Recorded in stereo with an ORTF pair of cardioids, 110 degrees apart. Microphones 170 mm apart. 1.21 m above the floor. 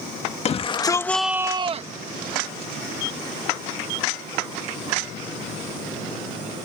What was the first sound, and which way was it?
A shout, 40° left.